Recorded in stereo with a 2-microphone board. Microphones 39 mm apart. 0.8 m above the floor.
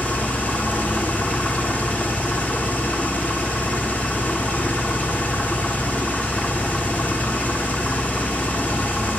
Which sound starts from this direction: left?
An engine running, at 0.0 s.